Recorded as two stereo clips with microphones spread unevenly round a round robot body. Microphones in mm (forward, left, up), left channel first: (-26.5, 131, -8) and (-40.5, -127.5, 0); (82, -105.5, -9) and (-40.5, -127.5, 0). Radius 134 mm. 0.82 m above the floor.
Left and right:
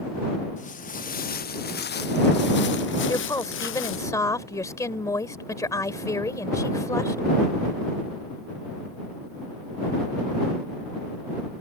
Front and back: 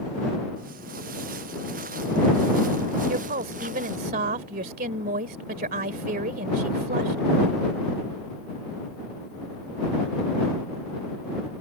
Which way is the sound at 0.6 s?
150° left.